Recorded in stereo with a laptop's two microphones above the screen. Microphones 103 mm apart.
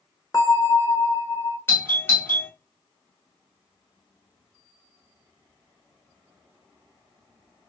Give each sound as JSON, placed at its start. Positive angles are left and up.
{"t": 0.3, "sound": "a bell", "side_deg": 35, "distance_m": 1.1}
{"t": 1.7, "sound": "a doorbell", "side_deg": 20, "distance_m": 1.5}